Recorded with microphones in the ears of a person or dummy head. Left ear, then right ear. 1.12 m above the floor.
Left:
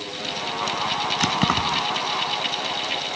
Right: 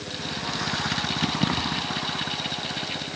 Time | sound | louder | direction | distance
1.2 | keys jangling | left 5 dB | 60° left (ahead or behind) | ?